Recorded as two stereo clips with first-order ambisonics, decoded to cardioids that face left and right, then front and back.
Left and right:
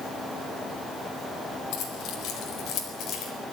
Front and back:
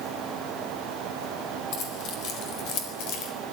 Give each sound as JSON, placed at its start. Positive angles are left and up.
{"t": 1.7, "sound": "keys jangling", "azimuth_deg": 45, "distance_m": 4.5}